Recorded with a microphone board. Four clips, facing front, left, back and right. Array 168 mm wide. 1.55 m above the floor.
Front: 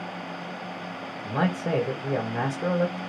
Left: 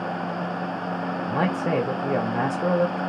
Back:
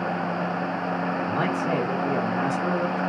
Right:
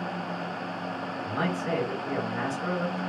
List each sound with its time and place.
1.2 s a man speaking: 60° left, 1.9 m